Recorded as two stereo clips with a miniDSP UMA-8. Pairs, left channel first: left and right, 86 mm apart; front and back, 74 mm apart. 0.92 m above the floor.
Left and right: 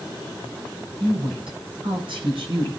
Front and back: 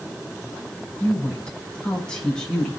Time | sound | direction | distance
1.0 | a woman speaking | 80° right | 7.5 m